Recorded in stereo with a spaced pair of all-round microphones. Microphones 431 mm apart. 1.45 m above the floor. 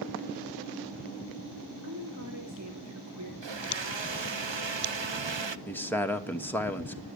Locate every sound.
1.8 s a woman speaking: 40° right (ahead or behind), 3 m
3.4 s a blender: 85° right, 0.7 m
5.7 s a man speaking: 5° left (ahead or behind), 1.6 m